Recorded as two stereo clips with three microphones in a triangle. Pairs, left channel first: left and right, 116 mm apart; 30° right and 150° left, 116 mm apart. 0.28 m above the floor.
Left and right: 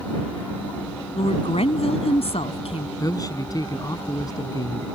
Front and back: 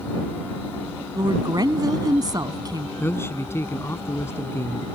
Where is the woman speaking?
100° left.